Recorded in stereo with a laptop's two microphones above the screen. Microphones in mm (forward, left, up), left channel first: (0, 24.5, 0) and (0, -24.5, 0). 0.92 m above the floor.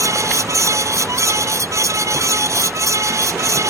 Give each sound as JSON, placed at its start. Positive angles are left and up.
{"t": 0.0, "sound": "a fan", "side_deg": -85}